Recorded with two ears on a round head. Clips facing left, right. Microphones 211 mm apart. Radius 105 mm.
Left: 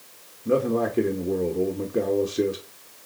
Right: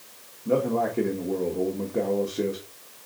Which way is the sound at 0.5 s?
15° left (ahead or behind).